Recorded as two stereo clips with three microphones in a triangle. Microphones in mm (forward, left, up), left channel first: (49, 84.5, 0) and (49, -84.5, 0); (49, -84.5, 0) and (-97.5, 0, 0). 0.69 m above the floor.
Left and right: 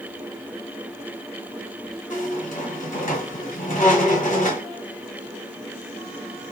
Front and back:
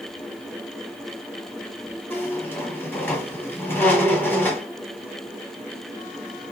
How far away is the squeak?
About 1.6 m.